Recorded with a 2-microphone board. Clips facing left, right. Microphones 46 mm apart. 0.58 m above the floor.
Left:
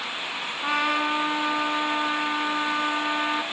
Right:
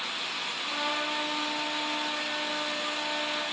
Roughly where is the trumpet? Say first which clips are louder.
Left 9 dB; left.